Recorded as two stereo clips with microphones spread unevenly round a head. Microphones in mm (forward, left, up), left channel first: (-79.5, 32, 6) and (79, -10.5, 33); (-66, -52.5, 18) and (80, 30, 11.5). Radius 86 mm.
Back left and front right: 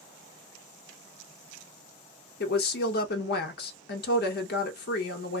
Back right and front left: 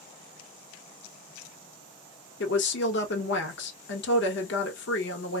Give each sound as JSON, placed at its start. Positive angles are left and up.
{"t": 2.4, "sound": "a woman speaking", "azimuth_deg": -170, "distance_m": 0.8}